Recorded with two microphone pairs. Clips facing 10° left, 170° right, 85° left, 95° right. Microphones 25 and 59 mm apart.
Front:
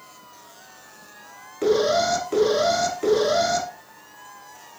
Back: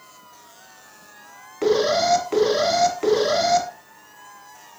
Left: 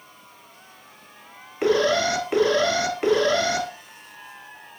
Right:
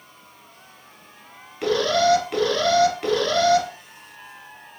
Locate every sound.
1.6 s an alarm: 130° left, 0.9 m